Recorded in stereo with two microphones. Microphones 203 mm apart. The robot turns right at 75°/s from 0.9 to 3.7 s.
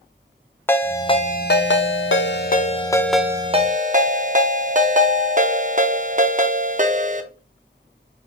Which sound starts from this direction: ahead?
A ringtone, at 0.7 s.